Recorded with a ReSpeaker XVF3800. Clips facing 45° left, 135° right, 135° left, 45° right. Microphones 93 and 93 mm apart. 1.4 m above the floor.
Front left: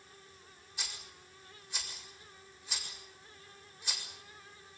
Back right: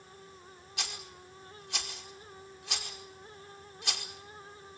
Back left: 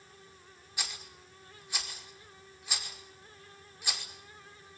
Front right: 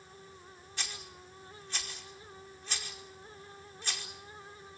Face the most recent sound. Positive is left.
turn(degrees=-145)